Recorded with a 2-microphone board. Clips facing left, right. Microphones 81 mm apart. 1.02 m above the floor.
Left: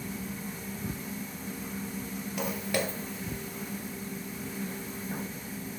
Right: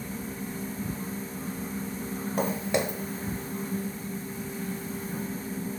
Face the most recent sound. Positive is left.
turn(degrees=25)  # may be behind; listen again after turning